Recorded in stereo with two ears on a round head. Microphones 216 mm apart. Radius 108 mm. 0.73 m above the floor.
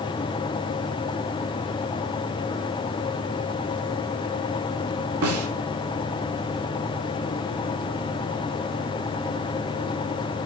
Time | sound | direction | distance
5.2 | a snare drum | 65° right (ahead or behind) | 3 m